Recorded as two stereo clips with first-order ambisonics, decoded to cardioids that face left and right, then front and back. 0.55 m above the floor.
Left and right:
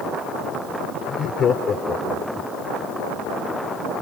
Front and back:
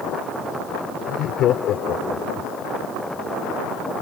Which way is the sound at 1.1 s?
40° left.